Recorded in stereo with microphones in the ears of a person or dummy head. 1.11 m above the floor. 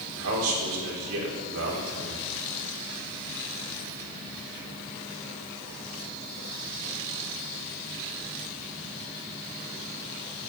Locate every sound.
0.1 s a man speaking: 80° right, 4 m